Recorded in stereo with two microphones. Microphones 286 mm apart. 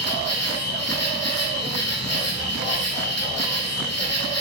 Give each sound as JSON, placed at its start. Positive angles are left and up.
{"t": 0.0, "sound": "an insect", "side_deg": 75, "distance_m": 0.8}